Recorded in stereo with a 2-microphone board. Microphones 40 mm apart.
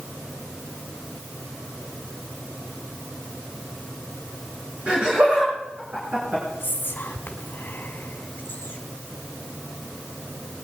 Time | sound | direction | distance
4.9 | laughter | 45° right (ahead or behind) | 4.5 m
6.6 | whispering | 65° left (ahead or behind) | 2 m